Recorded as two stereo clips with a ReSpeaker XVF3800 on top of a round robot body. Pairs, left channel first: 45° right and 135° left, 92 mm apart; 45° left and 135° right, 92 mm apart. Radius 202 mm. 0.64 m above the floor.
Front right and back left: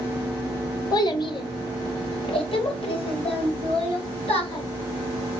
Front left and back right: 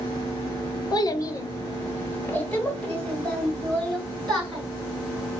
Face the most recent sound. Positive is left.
turn(degrees=-40)